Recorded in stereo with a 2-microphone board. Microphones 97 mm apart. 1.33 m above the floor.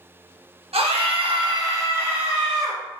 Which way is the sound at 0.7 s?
85° right.